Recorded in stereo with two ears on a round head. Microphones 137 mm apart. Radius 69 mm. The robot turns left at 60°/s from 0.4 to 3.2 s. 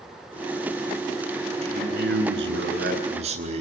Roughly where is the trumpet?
I don't hear a trumpet.